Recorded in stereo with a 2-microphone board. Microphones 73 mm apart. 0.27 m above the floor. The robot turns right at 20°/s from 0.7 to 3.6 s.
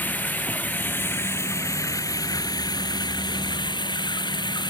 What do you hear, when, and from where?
0.0 s running water: 25° left; by 4.7 s 80° left